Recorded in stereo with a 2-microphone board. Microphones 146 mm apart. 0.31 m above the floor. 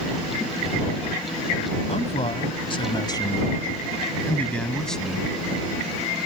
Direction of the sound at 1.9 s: 50° left (ahead or behind).